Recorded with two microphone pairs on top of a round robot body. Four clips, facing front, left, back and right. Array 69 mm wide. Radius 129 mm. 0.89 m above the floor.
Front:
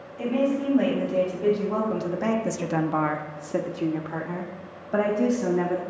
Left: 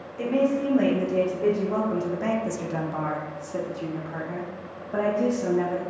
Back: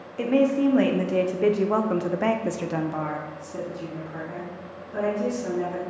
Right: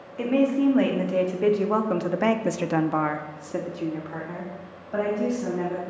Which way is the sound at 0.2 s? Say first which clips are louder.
Right 2 dB, back 4 dB; 155° right.